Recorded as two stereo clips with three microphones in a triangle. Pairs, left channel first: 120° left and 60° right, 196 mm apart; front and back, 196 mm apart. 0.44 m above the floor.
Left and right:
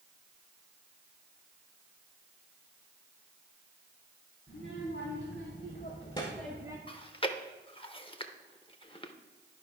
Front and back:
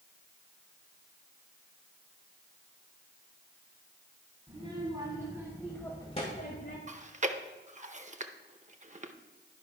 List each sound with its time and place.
4.5 s a child speaking: 120° left, 3 m; by 6.8 s 10° left, 1.4 m
6.9 s chewing: 165° left, 0.7 m